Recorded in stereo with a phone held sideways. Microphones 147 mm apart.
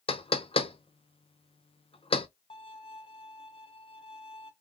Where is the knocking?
40° left (ahead or behind), 0.6 m.